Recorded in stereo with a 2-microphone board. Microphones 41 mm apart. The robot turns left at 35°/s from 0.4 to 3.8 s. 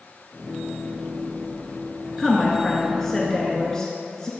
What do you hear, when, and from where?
2.2 s a woman speaking: 5° right (ahead or behind), 1.4 m; by 4.3 s 20° left (ahead or behind), 1.4 m